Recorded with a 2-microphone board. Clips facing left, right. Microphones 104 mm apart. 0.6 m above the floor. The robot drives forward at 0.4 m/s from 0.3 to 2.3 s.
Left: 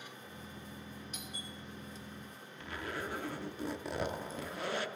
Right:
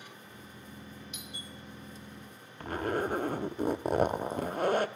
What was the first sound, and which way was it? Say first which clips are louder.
A doorbell: even; 40° left (ahead or behind).